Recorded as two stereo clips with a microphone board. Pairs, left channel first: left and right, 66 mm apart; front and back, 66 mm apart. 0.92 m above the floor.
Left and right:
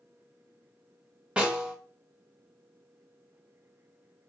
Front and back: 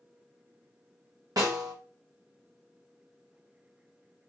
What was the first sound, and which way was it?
A snare drum, 165° right.